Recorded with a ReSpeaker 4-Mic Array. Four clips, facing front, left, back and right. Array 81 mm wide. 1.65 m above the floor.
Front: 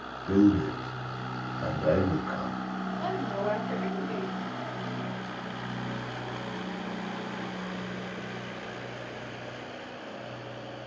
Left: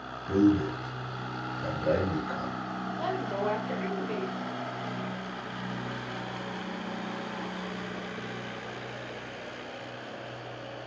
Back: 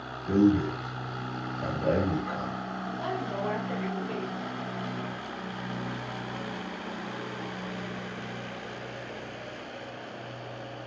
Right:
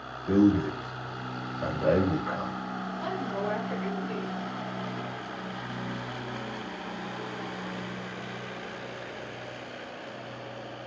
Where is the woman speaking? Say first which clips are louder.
Left 2 dB, front 1 dB; 100° left, 1.9 m.